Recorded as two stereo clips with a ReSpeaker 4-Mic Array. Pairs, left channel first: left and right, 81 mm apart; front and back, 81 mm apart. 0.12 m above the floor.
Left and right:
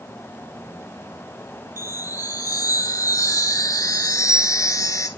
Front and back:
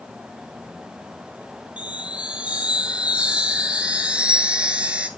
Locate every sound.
1.8 s a chime: 110° left, 0.8 m